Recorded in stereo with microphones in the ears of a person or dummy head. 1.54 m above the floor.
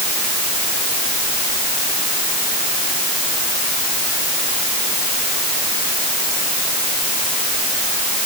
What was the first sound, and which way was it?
Only background noise.